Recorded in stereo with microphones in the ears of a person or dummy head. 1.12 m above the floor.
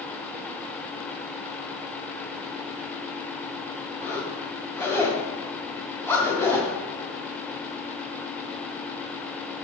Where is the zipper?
15° left (ahead or behind), 2.0 m.